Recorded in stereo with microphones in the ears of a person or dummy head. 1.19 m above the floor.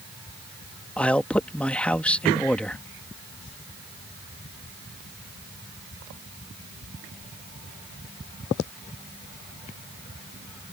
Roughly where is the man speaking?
Centre.